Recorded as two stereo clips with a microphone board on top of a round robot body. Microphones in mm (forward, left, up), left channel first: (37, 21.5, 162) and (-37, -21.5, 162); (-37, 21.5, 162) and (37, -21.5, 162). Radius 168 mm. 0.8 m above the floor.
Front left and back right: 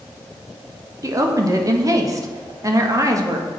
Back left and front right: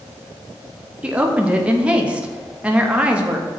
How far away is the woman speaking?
About 1.5 m.